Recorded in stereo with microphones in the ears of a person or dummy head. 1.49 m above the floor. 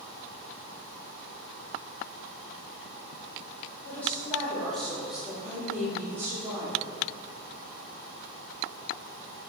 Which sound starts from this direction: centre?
A woman speaking, at 3.8 s.